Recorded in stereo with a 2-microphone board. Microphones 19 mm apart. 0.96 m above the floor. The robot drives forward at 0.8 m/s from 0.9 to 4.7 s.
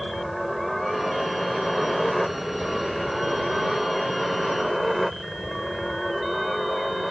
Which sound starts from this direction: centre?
A helicopter, at 0.0 s.